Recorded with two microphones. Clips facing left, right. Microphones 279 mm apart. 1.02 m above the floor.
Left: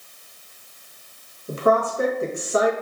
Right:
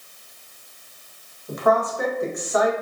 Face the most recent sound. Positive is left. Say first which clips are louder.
# left 1 dB
turn(degrees=35)  # may be behind; listen again after turning